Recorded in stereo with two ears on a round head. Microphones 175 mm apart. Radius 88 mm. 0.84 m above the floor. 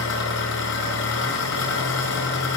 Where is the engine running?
70° left (ahead or behind), 7 m.